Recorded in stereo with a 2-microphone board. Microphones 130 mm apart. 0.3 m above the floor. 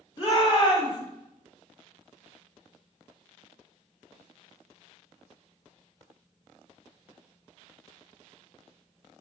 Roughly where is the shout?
Left.